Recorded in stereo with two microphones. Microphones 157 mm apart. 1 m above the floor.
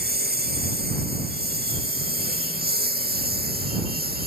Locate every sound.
0.0 s a lawn mower: 85° right; by 4.3 s 80° right